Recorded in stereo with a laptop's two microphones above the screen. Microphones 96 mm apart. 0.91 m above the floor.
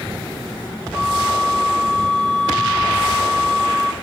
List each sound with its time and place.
0.9 s a flute: 35° right (ahead or behind), 4 m